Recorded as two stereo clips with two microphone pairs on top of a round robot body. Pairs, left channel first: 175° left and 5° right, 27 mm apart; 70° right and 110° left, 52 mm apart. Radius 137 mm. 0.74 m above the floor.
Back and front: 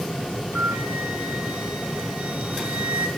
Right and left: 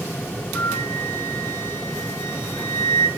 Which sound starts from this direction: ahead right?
A flute, at 0.6 s.